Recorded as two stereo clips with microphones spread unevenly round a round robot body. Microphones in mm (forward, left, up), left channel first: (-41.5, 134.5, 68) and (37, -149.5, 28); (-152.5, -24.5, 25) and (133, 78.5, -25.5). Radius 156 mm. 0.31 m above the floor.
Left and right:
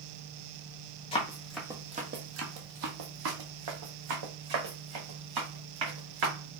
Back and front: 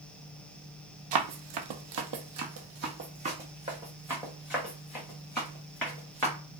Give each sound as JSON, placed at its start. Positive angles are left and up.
{"t": 1.1, "sound": "running footsteps", "azimuth_deg": 35, "distance_m": 0.7}